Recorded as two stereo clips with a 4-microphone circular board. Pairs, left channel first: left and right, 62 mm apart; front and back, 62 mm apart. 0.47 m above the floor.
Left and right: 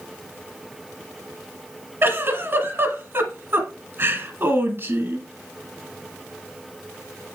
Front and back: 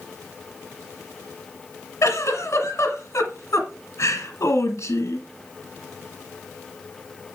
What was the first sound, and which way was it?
A giggle, 40° right.